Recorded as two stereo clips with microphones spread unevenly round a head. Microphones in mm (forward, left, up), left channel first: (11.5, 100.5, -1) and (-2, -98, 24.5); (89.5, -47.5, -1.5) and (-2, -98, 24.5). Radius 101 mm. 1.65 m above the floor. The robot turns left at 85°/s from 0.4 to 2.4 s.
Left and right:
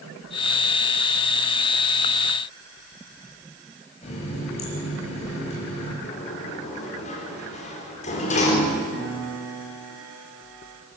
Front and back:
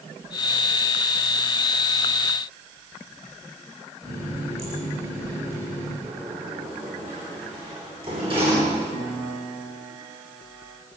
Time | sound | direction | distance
4.0 | a running tap | 145° left | 7 m
6.0 | a sliding door | 145° left | 4.5 m
8.9 | a piano | 130° right | 7 m